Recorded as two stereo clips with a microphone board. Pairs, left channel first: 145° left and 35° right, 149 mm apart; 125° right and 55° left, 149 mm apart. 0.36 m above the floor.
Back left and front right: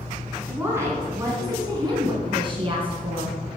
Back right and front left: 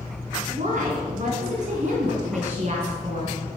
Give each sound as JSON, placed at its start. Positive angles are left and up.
{"t": 0.5, "sound": "a woman speaking", "azimuth_deg": 40, "distance_m": 2.5}